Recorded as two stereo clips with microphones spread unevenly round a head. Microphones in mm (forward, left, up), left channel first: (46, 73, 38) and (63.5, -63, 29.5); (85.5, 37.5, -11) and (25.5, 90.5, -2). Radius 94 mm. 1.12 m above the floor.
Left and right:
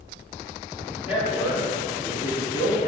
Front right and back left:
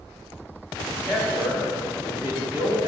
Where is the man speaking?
50° left, 2 m; by 2.9 s 90° left, 2.5 m.